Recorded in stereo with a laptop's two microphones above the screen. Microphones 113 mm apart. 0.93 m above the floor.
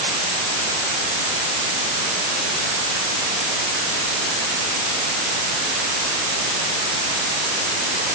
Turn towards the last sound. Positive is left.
No sound to turn to.